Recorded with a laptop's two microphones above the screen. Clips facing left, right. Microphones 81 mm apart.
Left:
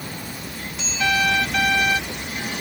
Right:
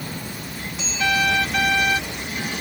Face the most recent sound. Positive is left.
No sound to turn to.